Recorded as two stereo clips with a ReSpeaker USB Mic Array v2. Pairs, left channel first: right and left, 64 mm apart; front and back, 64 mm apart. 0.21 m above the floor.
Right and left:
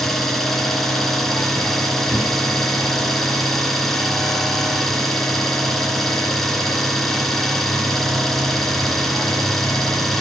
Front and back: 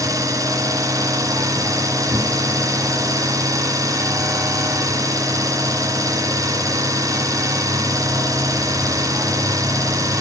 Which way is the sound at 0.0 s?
175° right.